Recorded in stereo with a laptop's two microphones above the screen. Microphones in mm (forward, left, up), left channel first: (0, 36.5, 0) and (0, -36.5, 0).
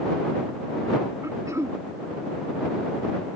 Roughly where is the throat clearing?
Right.